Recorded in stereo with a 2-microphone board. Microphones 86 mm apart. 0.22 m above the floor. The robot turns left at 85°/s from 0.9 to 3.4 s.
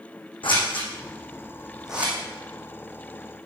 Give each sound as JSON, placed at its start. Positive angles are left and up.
{"t": 0.4, "sound": "scissors", "side_deg": 80, "distance_m": 4.0}